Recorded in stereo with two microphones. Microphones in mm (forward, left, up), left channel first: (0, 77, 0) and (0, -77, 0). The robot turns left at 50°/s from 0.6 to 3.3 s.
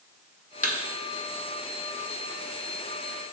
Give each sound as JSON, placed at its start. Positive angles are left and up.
{"t": 0.6, "sound": "a thud", "side_deg": 60, "distance_m": 0.9}